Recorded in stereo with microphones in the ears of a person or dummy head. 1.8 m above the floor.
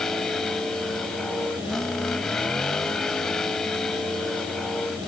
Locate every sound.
0.0 s a vehicle: 5° left (ahead or behind)